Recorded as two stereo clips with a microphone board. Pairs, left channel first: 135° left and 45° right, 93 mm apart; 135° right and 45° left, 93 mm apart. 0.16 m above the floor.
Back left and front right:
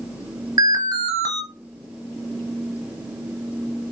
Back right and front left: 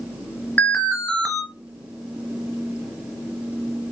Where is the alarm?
65° right, 1.4 m.